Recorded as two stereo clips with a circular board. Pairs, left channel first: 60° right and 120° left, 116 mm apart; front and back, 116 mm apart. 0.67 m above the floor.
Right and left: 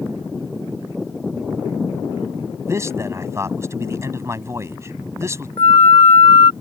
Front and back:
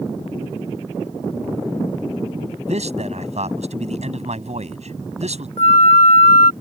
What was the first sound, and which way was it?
A man speaking, 175° right.